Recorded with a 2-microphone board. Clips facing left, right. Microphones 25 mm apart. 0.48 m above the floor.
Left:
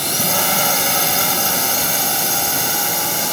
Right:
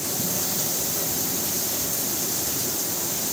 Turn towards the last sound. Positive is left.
turn(degrees=55)  # may be behind; listen again after turning